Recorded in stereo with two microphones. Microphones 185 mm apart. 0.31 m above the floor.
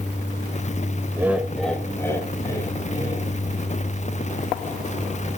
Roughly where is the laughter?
Centre.